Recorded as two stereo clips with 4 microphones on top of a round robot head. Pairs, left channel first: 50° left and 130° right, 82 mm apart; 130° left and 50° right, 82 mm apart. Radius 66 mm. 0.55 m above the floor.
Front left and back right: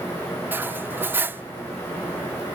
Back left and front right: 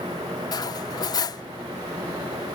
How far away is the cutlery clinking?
About 0.6 m.